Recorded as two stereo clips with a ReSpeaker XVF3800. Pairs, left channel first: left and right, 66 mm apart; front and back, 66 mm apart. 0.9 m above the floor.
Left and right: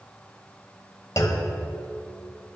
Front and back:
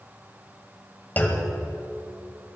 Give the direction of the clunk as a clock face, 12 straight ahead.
10 o'clock.